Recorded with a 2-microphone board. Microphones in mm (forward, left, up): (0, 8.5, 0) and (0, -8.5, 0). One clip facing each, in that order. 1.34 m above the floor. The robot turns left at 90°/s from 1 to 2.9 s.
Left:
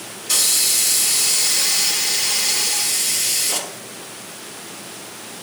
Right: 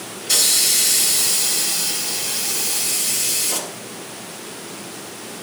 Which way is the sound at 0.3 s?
Straight behind.